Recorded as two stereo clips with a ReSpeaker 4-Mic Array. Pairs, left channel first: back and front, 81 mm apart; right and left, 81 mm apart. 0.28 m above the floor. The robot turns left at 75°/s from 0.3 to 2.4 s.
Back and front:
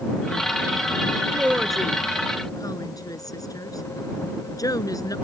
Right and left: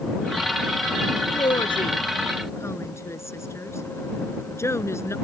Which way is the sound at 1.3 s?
60° right.